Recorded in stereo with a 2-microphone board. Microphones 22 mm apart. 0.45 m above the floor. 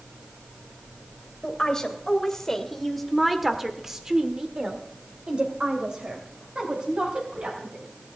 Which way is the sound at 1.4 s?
30° left (ahead or behind).